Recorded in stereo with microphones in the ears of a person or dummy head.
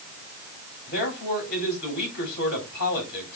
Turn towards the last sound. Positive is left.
turn(degrees=60)  # may be behind; listen again after turning